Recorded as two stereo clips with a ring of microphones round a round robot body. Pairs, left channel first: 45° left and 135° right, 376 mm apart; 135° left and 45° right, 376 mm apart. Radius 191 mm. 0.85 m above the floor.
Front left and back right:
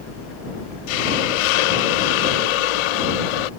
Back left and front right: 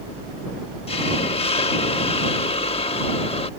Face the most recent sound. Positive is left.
turn(degrees=60)